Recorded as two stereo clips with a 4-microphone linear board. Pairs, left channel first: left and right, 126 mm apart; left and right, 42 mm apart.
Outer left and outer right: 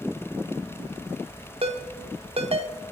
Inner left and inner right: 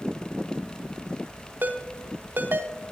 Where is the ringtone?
55° right (ahead or behind), 0.9 m.